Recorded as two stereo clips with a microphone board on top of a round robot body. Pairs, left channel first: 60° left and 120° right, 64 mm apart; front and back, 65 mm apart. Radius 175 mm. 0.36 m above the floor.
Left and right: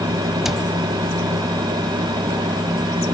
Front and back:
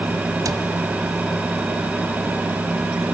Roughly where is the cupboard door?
Behind left.